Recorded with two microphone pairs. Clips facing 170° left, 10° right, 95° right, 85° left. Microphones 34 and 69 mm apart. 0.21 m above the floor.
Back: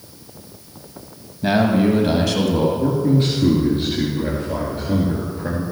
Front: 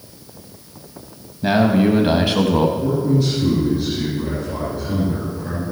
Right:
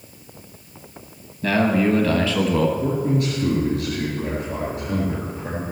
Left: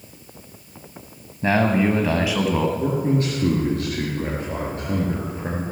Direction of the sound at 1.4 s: 75° left.